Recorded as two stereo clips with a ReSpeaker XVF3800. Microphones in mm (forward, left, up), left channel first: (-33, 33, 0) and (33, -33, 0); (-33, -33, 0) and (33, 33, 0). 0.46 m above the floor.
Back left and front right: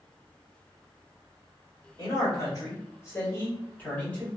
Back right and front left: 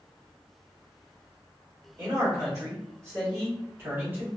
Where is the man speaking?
95° left, 1.8 m; by 4.3 s 70° left, 1.0 m.